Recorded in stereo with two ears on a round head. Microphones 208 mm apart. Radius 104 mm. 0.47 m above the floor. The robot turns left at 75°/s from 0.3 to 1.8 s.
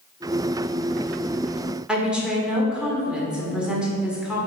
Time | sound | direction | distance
1.9 | a woman speaking | 5° right (ahead or behind) | 1.6 m